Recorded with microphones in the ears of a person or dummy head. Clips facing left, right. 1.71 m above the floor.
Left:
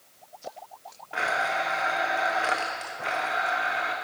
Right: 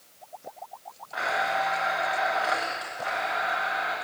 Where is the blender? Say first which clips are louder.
Right 1 dB; 35° left (ahead or behind), 0.9 m.